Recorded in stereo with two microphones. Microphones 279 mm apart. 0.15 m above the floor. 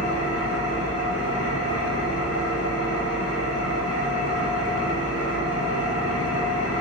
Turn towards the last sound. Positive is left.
turn(degrees=60)  # may be behind; listen again after turning